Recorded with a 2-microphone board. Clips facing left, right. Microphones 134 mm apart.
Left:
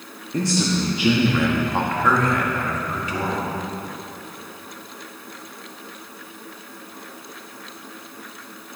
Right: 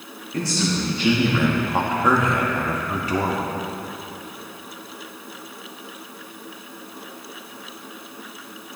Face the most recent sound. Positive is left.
turn(degrees=-40)  # may be behind; listen again after turning